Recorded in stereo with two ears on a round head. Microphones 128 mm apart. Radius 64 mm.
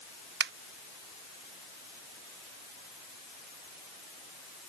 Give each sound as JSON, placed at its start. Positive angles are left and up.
{"t": 0.4, "sound": "a finger snap", "side_deg": -85}